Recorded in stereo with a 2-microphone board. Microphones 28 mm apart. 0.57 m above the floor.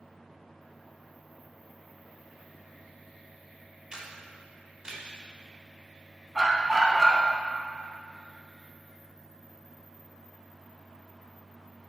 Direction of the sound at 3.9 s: 25° right (ahead or behind).